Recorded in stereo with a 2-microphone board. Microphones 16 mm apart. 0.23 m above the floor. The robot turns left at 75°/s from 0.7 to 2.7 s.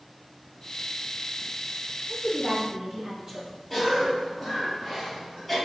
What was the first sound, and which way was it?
A woman speaking, 20° right.